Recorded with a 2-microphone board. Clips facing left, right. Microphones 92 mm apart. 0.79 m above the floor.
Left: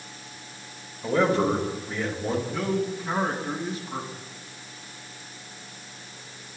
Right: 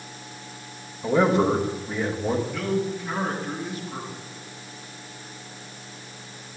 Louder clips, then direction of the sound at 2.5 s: Right 1 dB; 30° left (ahead or behind).